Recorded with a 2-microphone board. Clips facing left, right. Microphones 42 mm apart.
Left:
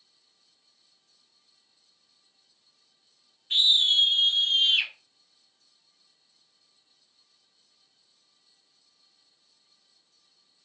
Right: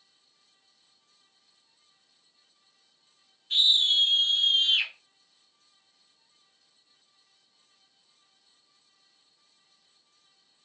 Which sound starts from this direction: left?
A scream, at 3.5 s.